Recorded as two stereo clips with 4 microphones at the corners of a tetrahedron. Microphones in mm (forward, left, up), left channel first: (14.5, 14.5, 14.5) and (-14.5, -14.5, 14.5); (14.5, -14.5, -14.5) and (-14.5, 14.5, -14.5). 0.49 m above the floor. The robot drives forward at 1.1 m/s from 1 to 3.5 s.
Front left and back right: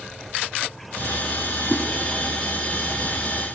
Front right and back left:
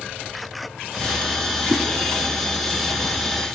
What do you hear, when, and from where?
1.7 s a whoosh: 125° left, 3 m